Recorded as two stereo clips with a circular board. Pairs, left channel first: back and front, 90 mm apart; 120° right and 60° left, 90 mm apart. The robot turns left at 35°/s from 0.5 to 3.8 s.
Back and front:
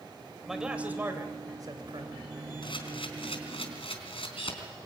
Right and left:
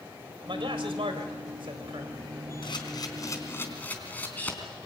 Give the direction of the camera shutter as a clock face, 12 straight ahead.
5 o'clock.